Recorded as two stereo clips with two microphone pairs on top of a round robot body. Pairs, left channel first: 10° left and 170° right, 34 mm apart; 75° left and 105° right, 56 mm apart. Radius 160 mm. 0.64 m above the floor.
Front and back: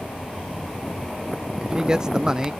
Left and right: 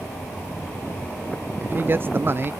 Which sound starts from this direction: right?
A man speaking, at 1.6 s.